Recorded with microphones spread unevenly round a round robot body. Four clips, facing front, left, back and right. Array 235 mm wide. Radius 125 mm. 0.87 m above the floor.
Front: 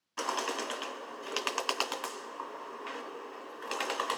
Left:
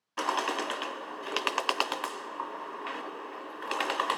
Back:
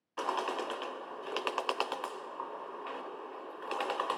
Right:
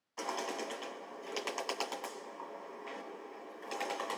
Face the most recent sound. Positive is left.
turn(degrees=80)